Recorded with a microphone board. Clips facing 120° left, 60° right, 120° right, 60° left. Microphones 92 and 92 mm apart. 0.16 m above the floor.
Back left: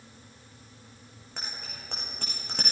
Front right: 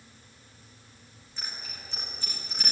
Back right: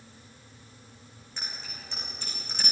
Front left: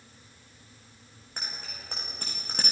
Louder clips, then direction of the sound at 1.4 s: Back left 1 dB, front left 1 dB; 100° left.